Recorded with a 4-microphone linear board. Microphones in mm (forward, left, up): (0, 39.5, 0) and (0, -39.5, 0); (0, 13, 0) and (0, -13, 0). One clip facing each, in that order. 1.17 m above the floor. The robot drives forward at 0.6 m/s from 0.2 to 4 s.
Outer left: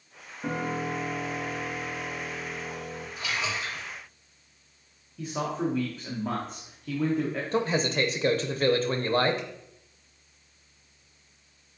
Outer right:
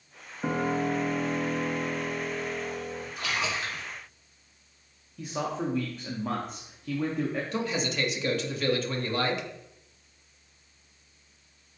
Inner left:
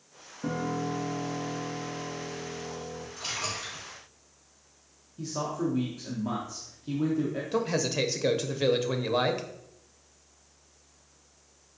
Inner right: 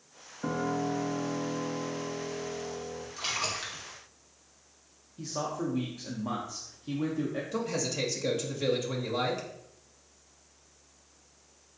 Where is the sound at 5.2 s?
Centre (ahead or behind), 0.5 m.